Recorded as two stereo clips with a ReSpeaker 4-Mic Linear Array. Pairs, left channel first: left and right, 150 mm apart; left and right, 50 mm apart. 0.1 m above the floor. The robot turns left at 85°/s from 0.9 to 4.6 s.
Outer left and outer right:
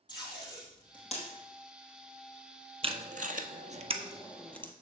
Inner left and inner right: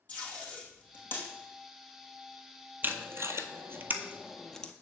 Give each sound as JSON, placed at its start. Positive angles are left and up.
{"t": 0.1, "sound": "tape being pulled", "side_deg": 30, "distance_m": 2.5}
{"t": 2.8, "sound": "tape being pulled", "side_deg": -40, "distance_m": 0.7}